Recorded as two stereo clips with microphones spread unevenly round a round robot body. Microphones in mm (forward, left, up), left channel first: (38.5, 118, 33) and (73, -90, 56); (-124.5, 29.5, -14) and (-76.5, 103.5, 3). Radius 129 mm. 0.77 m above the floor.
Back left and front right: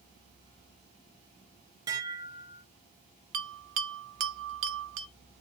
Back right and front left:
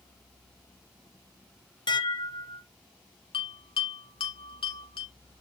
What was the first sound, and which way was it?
Dishes clattering, 155° right.